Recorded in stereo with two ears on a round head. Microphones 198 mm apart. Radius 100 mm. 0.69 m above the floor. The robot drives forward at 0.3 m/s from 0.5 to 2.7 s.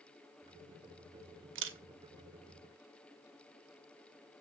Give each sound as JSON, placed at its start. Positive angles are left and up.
{"t": 1.6, "sound": "a camera shutter", "side_deg": -60, "distance_m": 1.1}